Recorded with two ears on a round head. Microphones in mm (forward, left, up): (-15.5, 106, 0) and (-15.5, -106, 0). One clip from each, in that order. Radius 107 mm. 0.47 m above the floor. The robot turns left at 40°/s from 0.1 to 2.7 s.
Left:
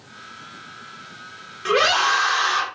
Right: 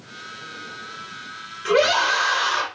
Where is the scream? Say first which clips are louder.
Even; 160° left, 1.1 m; by 2.7 s 120° left, 1.1 m.